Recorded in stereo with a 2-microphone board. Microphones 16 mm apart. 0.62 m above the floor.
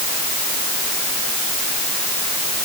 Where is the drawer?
No drawer in this recording.